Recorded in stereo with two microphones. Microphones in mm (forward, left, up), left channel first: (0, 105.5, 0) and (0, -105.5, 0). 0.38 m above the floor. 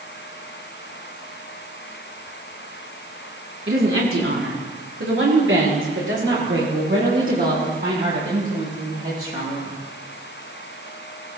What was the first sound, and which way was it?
A woman speaking, 75° right (ahead or behind).